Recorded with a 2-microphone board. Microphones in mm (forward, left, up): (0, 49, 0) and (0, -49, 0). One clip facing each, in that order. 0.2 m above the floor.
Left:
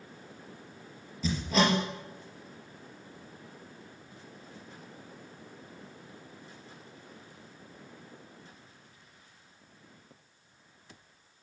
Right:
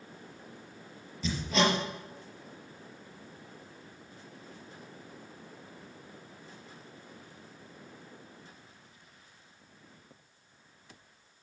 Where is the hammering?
5° left (ahead or behind), 4 m.